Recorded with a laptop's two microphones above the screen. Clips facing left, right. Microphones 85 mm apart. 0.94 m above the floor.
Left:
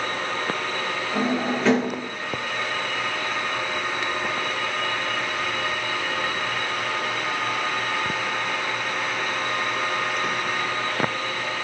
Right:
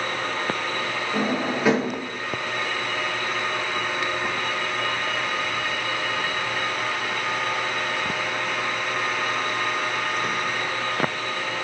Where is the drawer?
10° right (ahead or behind), 0.7 m.